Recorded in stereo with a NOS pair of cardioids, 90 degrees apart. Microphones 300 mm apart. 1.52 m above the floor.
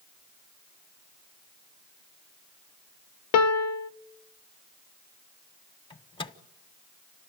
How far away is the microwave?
About 1.1 m.